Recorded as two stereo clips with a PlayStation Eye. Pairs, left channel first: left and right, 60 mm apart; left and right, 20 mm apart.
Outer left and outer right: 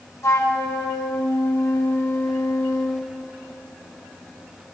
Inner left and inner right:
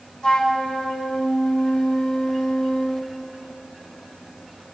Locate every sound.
0.2 s a flute: 50° left (ahead or behind), 1.0 m